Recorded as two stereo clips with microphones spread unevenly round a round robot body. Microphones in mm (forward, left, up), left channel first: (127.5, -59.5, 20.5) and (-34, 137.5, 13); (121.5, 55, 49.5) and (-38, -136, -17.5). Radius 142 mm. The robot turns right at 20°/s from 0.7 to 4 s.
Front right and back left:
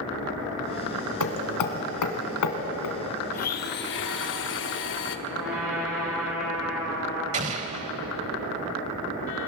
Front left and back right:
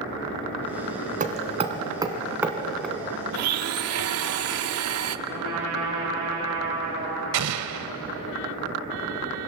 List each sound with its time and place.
1.2 s hammering: 70° right, 2.5 m; by 3.0 s 35° right, 2.5 m
3.3 s a blender: 115° right, 0.9 m; by 5.2 s 100° right, 0.9 m
5.3 s a trumpet: 140° right, 10 m
7.3 s an explosion: 165° right, 1.0 m